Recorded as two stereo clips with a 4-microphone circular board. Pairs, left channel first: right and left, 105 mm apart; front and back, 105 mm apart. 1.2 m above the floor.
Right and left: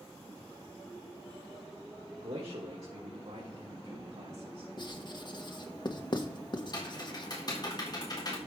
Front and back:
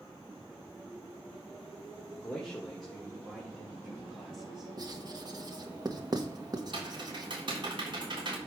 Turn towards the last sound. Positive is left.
turn(degrees=-140)